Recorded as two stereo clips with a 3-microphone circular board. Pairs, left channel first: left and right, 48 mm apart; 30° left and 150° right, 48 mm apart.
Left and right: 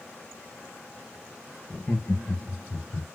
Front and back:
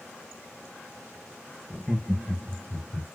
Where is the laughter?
140° left, 1.0 m; by 3.0 s 115° left, 1.5 m.